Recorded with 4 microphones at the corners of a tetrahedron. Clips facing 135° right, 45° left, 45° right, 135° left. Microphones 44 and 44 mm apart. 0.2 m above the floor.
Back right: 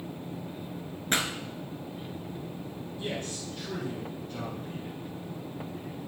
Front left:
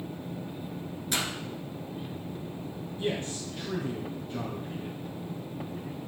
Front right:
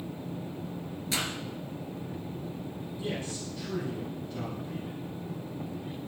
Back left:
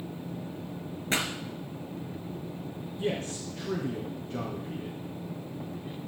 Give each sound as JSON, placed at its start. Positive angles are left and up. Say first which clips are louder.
{"t": 1.1, "sound": "a pop", "louder": "back right 3 dB, back left 3 dB", "azimuth_deg": 180, "distance_m": 1.6}
{"t": 3.0, "sound": "a man speaking", "louder": "front left 4 dB, back left 4 dB", "azimuth_deg": 125, "distance_m": 2.5}